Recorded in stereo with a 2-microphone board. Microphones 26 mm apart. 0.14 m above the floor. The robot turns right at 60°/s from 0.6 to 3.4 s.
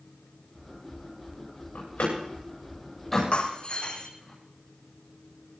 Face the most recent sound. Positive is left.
turn(degrees=40)  # may be behind; listen again after turning